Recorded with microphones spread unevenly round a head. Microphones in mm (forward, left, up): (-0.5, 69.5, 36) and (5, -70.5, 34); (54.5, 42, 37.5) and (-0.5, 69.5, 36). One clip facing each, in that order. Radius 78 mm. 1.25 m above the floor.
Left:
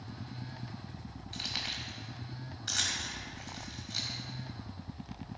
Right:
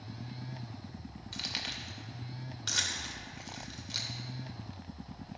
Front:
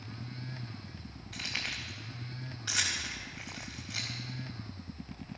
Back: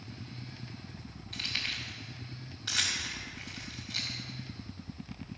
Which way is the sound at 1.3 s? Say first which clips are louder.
Even, even; 105° right.